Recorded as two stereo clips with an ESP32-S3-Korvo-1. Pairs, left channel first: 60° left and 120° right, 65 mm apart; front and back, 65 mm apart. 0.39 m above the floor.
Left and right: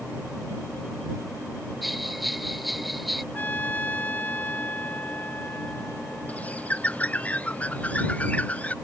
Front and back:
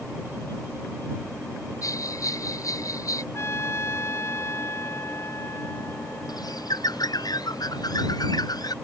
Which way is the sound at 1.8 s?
30° right.